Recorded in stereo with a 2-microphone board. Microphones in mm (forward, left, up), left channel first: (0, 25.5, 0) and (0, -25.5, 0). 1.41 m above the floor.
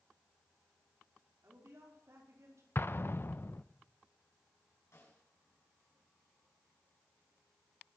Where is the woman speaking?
65° right (ahead or behind), 4.5 m; by 2.6 s 75° right (ahead or behind), 4.5 m.